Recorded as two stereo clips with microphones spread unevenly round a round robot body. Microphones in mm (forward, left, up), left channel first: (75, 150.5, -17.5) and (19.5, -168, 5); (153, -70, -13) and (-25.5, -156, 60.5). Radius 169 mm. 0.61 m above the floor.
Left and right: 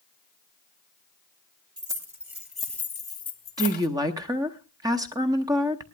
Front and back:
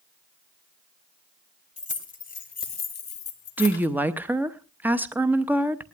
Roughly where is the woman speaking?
Ahead right.